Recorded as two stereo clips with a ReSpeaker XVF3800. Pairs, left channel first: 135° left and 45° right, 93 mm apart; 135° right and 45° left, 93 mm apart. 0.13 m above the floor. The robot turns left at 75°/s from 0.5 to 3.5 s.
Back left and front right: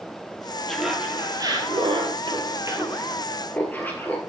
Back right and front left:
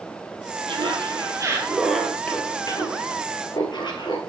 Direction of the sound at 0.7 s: 55° left.